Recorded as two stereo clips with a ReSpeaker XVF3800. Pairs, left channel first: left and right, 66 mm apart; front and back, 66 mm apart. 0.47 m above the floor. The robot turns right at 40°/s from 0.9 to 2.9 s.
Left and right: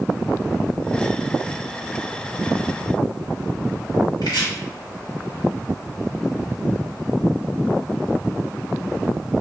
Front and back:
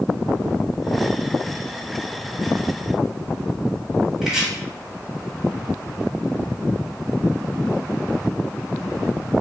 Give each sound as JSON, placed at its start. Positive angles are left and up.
{"t": 4.2, "sound": "chopping", "azimuth_deg": 95, "distance_m": 1.7}